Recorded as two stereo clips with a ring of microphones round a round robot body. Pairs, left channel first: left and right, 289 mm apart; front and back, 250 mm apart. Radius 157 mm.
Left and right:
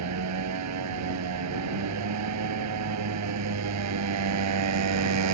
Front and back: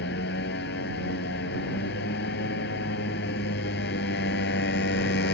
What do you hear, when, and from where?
0.0 s a motorcycle: 55° right